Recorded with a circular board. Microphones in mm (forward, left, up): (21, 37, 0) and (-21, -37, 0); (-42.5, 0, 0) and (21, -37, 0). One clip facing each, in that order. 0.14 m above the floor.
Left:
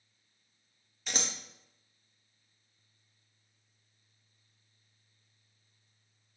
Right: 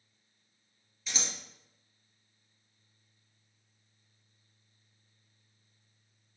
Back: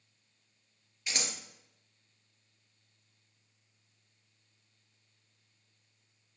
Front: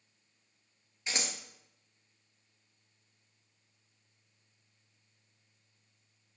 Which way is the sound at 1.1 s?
35° left.